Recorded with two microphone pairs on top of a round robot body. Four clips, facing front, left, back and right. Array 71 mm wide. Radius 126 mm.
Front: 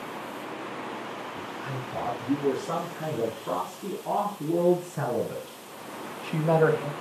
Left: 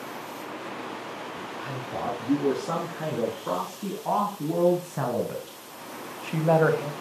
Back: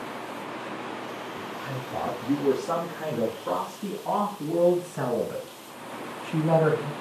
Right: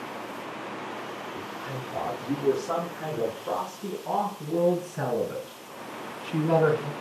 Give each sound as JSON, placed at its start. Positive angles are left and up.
{"t": 1.4, "sound": "a man speaking", "azimuth_deg": 115, "distance_m": 9.0}